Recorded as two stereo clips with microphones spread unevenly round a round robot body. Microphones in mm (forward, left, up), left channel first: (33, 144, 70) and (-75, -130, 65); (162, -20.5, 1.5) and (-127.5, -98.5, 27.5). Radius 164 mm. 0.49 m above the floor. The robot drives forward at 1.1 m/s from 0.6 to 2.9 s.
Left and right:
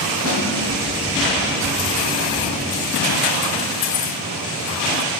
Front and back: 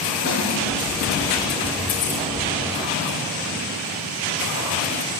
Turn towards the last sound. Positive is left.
turn(degrees=145)